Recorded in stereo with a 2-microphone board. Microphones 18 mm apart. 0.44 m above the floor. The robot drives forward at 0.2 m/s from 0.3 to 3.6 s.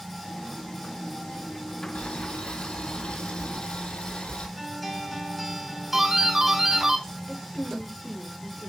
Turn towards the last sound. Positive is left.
turn(degrees=50)  # may be behind; listen again after turning